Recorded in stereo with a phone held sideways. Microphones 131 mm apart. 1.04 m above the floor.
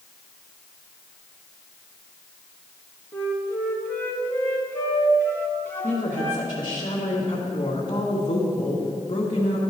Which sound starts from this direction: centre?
A flute, at 3.1 s.